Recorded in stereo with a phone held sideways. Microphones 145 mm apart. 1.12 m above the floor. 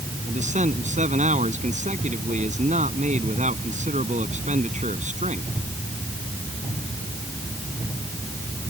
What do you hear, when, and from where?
0.3 s a man speaking: 55° right (ahead or behind)